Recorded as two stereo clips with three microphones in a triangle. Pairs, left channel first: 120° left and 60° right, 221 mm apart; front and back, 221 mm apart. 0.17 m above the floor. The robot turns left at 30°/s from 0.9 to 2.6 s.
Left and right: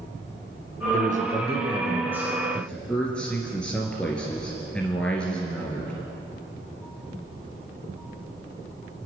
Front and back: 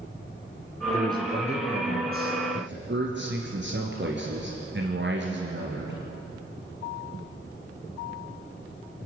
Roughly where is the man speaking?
Right.